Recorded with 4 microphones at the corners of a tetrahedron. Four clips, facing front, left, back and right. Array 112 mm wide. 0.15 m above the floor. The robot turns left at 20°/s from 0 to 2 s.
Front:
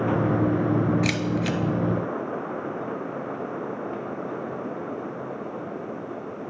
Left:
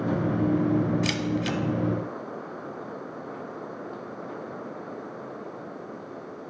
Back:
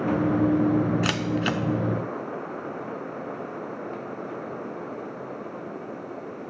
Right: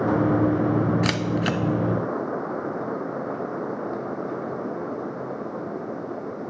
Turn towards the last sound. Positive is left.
turn(degrees=-140)